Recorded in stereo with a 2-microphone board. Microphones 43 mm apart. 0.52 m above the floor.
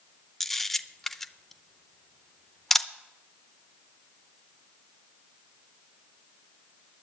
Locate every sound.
0.4 s a camera shutter: 5° left (ahead or behind), 0.6 m